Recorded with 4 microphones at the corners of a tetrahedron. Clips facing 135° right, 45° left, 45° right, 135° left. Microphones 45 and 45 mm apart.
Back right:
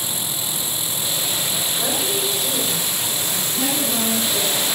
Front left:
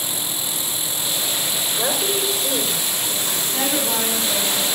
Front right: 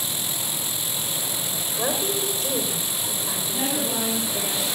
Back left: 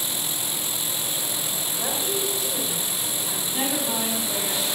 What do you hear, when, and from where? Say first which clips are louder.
1.8 s a woman speaking: front left 2 dB, front right 3 dB; 10° right, 3.5 m
3.5 s a woman speaking: front left 1 dB, even; 60° left, 4.5 m